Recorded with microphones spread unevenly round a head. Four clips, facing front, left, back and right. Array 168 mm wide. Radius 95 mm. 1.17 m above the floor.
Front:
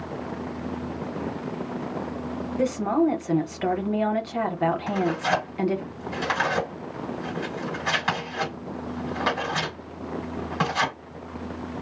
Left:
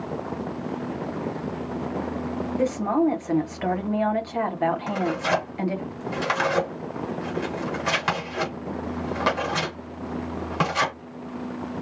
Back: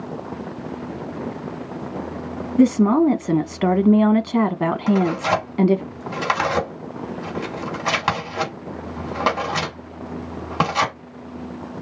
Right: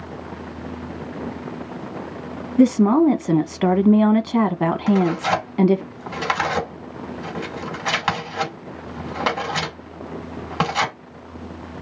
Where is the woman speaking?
130° right, 1.3 m.